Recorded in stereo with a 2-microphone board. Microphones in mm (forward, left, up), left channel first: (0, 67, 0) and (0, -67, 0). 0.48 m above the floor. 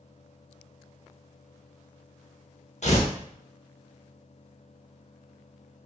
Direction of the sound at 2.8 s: 60° left (ahead or behind).